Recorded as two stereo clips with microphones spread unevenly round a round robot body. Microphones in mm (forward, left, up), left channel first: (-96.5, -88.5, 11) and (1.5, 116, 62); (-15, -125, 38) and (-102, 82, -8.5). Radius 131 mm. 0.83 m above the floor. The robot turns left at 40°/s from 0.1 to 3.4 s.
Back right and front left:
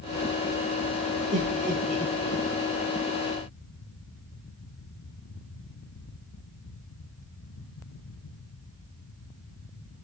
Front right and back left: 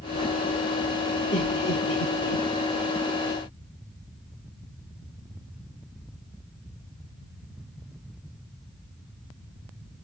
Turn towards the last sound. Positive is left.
turn(degrees=-85)